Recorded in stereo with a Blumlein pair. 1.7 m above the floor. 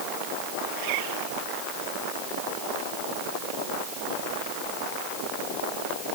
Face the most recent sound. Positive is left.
turn(degrees=-45)